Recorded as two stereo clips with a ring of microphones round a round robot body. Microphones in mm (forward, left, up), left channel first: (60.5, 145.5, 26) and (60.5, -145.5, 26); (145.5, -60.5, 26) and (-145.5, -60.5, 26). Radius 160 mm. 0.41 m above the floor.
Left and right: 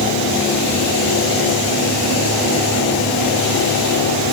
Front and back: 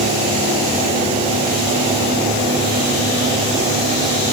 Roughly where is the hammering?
No hammering in this recording.